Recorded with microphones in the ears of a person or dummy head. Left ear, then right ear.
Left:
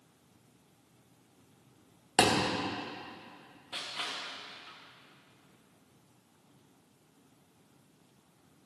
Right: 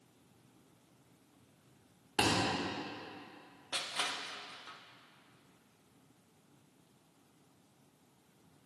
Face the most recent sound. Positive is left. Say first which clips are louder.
# right 1 dB
turn(degrees=-20)  # may be behind; listen again after turning